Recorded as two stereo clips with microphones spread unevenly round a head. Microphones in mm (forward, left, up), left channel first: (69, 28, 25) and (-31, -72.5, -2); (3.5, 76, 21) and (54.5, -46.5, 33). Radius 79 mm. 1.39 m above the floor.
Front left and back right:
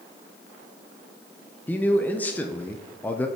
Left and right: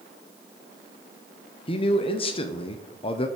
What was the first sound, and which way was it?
A man speaking, 130° left.